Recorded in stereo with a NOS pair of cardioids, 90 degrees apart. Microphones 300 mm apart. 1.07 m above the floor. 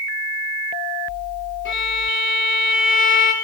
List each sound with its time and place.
1.6 s a violin: 40° left, 3.5 m